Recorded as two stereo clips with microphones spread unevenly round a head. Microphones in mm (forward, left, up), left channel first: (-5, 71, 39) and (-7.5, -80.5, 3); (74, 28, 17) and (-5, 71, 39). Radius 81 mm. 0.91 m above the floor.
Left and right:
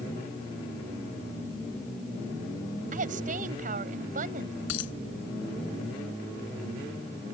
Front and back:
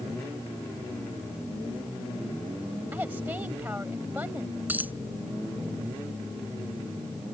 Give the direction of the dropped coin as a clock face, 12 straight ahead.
9 o'clock.